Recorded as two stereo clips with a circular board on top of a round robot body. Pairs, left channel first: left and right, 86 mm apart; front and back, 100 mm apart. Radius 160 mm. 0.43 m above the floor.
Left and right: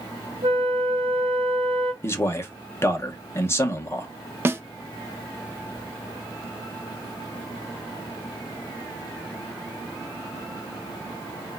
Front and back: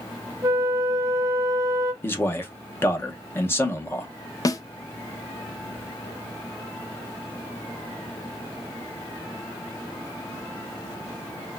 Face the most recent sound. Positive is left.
turn(degrees=-35)